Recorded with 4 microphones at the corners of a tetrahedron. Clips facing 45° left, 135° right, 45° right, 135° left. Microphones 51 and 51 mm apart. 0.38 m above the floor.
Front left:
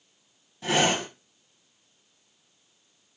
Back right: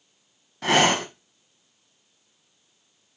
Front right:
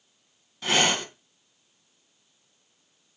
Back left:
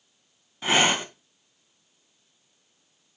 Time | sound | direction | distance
0.6 | breathing | 155° right | 1.0 m